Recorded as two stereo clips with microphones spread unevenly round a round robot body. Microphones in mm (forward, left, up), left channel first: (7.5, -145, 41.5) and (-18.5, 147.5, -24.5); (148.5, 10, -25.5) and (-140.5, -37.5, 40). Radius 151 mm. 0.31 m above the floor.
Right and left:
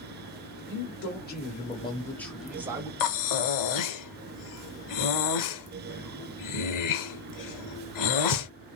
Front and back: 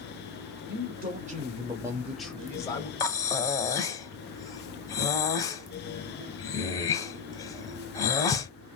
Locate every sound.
0.7 s a man speaking: 120° right, 1.3 m; by 2.9 s 50° left, 1.2 m
3.0 s breathing: 60° right, 0.8 m